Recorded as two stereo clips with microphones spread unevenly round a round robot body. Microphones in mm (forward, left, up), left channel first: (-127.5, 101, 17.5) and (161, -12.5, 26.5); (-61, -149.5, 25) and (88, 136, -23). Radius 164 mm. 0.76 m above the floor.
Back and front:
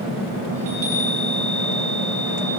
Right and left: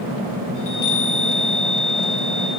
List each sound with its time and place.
0.6 s a chime: 70° right, 9.5 m